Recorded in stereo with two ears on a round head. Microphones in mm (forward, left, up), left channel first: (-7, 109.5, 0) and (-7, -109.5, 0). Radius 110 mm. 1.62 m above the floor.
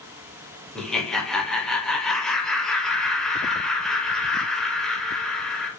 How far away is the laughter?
About 1.0 m.